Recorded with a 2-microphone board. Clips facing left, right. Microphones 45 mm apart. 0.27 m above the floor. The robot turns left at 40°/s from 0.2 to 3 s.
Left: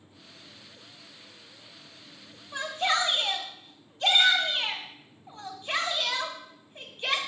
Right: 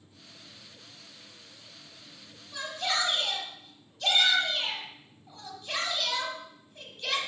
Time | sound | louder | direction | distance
2.5 | a shout | left 4 dB | 45° left (ahead or behind) | 1.6 m